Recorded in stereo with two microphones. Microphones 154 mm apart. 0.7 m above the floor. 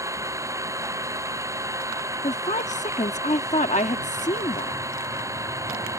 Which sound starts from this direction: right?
An engine running, at 0.0 s.